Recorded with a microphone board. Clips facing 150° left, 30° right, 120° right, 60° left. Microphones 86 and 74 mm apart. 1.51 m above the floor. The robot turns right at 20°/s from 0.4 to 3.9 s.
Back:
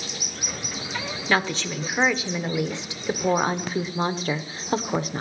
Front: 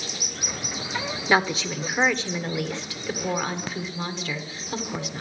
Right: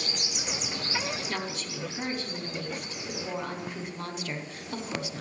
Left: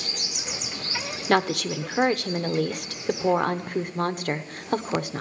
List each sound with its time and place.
1.3 s a woman speaking: 50° left, 0.9 m; by 5.2 s 100° left, 0.9 m